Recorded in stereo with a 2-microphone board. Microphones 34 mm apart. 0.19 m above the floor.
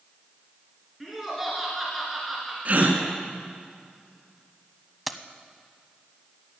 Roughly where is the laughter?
Centre.